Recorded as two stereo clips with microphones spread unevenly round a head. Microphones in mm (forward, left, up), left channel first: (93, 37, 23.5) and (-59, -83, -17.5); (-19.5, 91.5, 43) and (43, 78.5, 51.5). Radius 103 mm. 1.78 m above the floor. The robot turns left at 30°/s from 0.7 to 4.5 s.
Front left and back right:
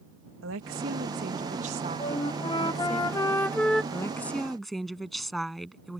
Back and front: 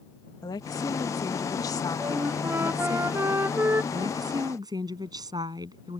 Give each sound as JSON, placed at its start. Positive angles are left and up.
{"t": 0.4, "sound": "a woman speaking", "azimuth_deg": -170}
{"t": 2.0, "sound": "a flute", "azimuth_deg": 25}
{"t": 3.9, "sound": "a woman speaking", "azimuth_deg": -30}